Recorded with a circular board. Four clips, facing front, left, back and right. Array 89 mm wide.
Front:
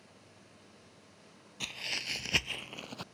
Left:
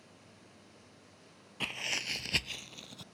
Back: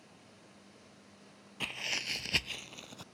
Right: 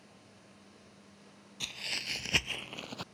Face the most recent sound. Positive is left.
turn(degrees=-60)